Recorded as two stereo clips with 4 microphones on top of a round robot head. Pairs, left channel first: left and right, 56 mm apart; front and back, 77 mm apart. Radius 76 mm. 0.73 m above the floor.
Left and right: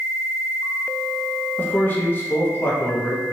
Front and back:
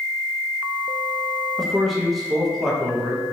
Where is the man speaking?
90° left, 0.6 m.